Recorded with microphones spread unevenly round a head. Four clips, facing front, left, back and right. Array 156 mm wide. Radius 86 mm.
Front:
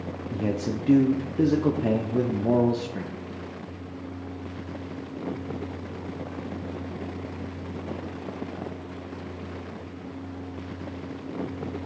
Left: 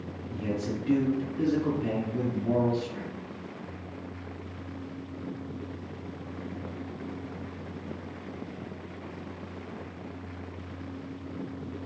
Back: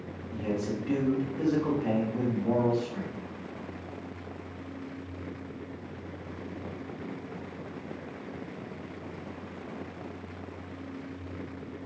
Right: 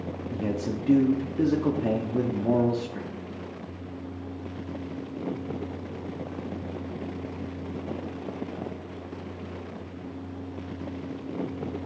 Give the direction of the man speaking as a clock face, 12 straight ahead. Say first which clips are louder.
Right 2 dB, front 3 dB; 1 o'clock.